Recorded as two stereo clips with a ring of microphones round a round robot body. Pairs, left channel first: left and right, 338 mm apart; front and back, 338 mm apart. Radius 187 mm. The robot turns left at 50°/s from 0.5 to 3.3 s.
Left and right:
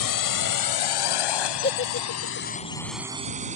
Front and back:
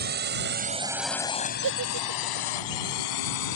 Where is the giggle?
155° left; by 2.5 s 110° left.